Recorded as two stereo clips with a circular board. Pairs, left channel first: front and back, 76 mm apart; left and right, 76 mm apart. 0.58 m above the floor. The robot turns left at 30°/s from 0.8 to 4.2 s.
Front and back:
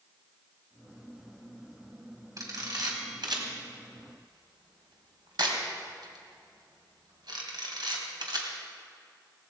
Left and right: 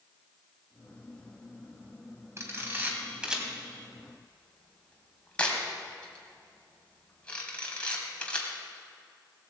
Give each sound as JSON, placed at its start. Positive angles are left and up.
{"t": 2.4, "sound": "a camera shutter", "azimuth_deg": -140, "distance_m": 2.5}